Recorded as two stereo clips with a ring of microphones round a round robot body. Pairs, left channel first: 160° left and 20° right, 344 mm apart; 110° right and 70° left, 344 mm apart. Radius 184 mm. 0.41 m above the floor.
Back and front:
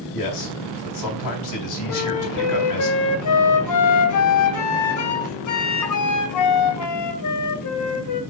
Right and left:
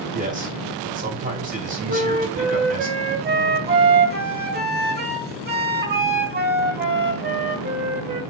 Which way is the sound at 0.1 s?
135° left.